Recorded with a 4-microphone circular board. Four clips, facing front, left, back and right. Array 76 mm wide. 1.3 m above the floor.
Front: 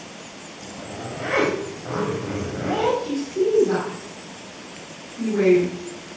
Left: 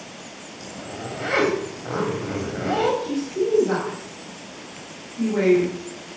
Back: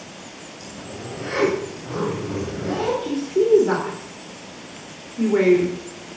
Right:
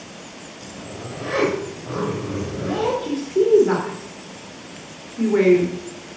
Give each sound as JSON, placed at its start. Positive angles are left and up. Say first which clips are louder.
{"t": 0.6, "sound": "a zipper", "louder": "left 2 dB, front 2 dB", "azimuth_deg": 60, "distance_m": 3.0}
{"t": 3.0, "sound": "a woman speaking", "louder": "right 4 dB, back 2 dB", "azimuth_deg": -145, "distance_m": 3.0}